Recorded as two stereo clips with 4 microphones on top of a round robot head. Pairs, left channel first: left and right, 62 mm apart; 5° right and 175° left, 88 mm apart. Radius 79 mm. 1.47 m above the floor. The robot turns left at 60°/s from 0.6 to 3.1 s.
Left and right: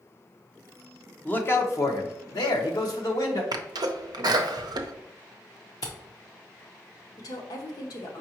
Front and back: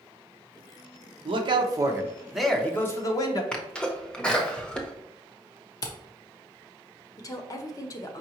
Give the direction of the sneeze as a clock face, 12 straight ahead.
3 o'clock.